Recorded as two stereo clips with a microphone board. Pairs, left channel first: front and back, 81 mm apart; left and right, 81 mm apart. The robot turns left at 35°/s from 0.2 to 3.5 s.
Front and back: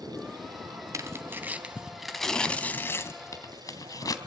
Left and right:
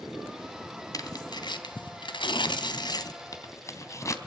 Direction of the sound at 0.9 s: 130° left.